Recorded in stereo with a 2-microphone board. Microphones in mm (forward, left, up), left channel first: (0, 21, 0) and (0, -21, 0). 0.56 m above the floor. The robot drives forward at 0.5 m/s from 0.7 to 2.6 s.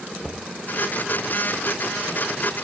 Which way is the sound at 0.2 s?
5° left (ahead or behind).